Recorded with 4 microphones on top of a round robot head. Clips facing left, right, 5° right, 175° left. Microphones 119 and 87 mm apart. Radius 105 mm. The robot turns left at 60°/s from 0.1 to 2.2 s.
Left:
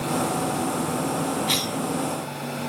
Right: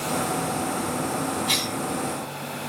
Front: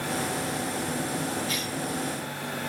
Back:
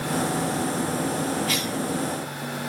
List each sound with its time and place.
1.5 s a cough: straight behind, 2.5 m; by 1.8 s 160° left, 2.5 m